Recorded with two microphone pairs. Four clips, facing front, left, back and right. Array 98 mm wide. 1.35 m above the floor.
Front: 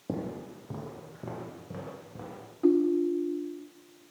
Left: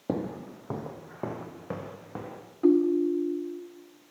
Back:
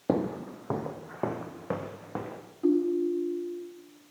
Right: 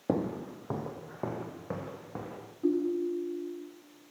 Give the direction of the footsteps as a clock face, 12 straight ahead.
5 o'clock.